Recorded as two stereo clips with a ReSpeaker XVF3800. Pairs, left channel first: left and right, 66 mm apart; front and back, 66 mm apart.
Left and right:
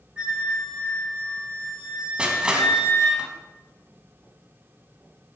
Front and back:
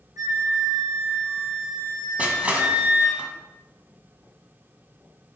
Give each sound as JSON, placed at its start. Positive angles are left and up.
{"t": 0.2, "sound": "a flute", "azimuth_deg": -165, "distance_m": 4.0}
{"t": 2.2, "sound": "crushing", "azimuth_deg": -145, "distance_m": 1.4}